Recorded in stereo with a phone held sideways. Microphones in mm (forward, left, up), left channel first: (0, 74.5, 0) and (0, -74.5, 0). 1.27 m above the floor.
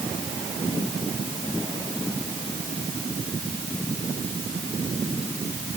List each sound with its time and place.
Only background noise.